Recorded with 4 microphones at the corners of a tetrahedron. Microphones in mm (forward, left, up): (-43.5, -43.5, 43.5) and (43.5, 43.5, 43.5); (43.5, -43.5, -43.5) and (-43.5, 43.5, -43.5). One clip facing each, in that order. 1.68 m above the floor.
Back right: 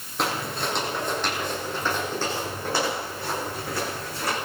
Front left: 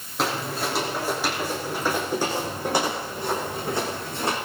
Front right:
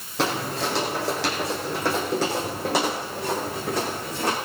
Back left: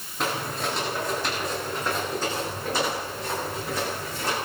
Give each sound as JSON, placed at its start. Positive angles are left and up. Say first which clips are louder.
{"t": 0.2, "sound": "footsteps", "louder": "front left 1 dB, front right 3 dB", "azimuth_deg": -45, "distance_m": 5.5}